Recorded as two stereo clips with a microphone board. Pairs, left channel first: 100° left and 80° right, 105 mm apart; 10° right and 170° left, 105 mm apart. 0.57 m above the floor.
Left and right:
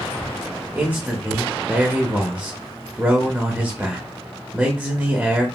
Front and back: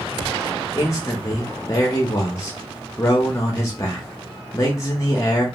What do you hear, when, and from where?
0.8 s a man speaking: 30° right, 0.6 m